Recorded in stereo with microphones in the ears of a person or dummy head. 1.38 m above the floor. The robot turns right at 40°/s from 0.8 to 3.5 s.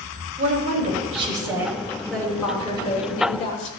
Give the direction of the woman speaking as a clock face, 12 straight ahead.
1 o'clock.